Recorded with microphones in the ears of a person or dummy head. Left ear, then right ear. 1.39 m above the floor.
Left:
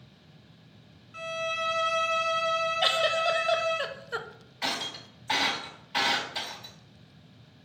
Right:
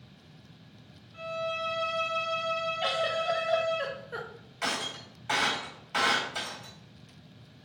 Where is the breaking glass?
25° right (ahead or behind), 1.9 m.